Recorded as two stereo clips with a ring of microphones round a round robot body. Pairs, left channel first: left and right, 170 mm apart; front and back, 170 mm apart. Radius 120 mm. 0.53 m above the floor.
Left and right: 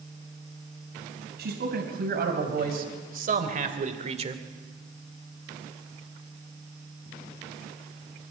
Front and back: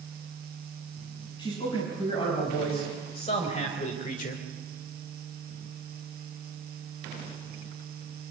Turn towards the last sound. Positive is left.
turn(degrees=-40)